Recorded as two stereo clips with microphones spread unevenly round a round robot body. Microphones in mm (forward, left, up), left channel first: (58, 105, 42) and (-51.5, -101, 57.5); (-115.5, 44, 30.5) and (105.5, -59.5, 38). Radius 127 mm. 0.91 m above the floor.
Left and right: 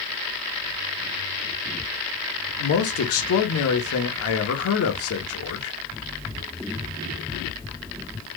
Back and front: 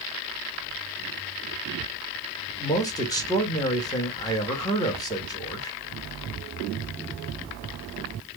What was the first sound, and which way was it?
A man speaking, 80° left.